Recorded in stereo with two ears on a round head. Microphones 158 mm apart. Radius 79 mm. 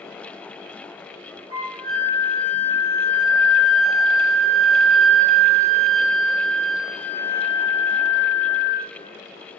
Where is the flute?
30° right (ahead or behind), 1.0 m.